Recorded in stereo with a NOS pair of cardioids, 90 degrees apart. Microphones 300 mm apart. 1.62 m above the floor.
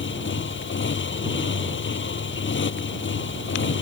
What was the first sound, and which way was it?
A motorcycle, 40° left.